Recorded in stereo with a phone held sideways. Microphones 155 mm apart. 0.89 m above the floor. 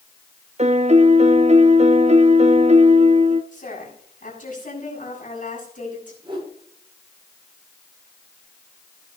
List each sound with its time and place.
0.6 s a piano: 45° right (ahead or behind), 0.9 m
3.5 s a woman speaking: 60° left (ahead or behind), 7.5 m
6.2 s a whoosh: 30° right (ahead or behind), 9.5 m